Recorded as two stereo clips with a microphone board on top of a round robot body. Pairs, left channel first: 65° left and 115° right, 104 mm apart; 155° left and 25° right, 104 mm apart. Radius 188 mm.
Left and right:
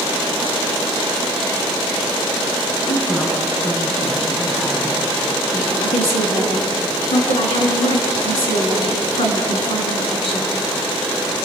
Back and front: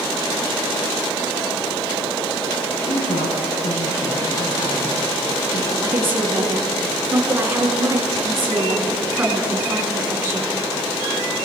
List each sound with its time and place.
2.9 s a woman speaking: 145° left, 7 m; by 5.7 s 155° left, 7.5 m
5.8 s a woman speaking: 45° left, 6 m